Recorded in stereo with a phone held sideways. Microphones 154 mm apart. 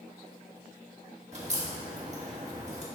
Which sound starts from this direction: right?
A crack, at 1.3 s.